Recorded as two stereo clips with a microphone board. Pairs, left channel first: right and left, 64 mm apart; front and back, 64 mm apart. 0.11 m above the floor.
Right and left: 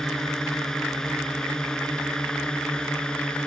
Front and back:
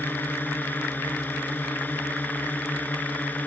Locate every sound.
0.0 s a drone: 15° right; by 3.5 s 30° right